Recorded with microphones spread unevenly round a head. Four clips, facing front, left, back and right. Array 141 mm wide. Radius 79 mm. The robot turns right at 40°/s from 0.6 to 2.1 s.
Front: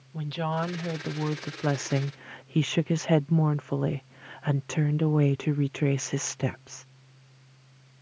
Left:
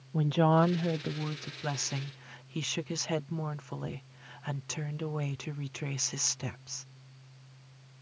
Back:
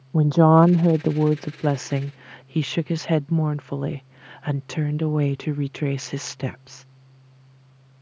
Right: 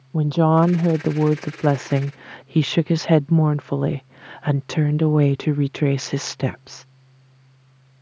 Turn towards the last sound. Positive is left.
turn(degrees=-90)